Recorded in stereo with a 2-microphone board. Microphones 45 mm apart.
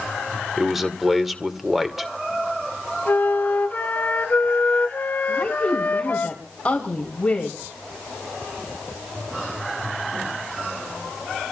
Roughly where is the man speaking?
Centre.